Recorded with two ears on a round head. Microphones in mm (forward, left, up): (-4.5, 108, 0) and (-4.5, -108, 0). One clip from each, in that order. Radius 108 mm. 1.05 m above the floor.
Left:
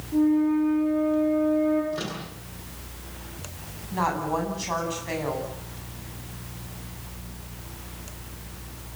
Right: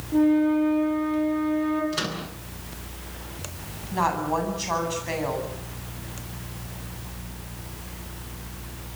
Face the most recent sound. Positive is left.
turn(degrees=-10)  # may be behind; listen again after turning